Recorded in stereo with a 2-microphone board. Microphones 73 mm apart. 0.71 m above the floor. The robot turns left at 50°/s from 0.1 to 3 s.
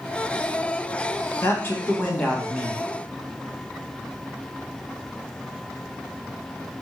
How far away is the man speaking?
About 1.3 m.